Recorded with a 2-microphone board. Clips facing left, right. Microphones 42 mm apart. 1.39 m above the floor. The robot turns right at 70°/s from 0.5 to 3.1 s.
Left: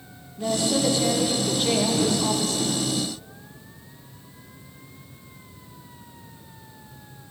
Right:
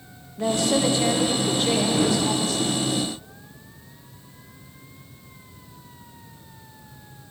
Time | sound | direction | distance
0.4 | a woman speaking | 70° right | 1.5 m